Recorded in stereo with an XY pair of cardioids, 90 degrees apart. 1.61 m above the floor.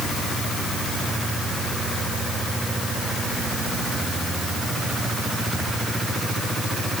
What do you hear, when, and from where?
Only background noise.